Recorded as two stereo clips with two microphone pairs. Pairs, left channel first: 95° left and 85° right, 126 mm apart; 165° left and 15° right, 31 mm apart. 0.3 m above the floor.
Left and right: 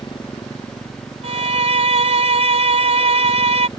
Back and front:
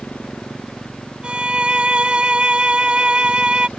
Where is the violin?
65° right.